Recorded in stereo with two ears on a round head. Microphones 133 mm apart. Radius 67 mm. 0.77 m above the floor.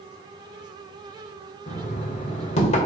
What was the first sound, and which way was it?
Knocking, 45° left (ahead or behind).